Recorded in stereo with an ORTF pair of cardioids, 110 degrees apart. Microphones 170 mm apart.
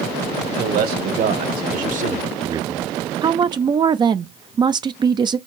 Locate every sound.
0.6 s a man speaking: 70° right, 2.5 m; by 2.9 s 20° left, 0.5 m
3.2 s a woman speaking: 30° right, 0.5 m